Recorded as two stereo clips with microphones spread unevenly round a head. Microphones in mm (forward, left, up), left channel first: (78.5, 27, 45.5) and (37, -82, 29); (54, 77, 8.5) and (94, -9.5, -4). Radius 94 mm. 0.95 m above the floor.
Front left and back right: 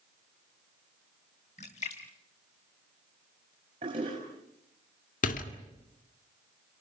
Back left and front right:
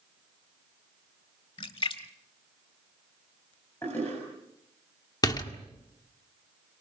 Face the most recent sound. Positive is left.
turn(degrees=60)